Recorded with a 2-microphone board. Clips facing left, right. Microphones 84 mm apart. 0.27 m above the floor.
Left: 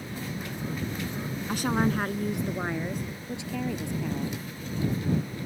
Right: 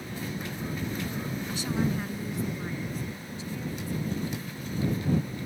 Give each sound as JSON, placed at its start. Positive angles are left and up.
{"t": 1.5, "sound": "a woman speaking", "side_deg": 60}